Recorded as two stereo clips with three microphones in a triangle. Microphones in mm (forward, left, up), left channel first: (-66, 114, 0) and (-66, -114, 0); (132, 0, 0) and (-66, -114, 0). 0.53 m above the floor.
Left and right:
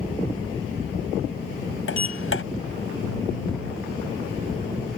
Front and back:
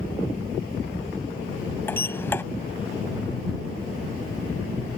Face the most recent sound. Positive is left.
turn(degrees=110)